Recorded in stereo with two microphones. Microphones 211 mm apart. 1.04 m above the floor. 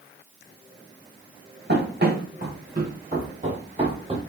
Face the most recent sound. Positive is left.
turn(degrees=-25)  # may be behind; listen again after turning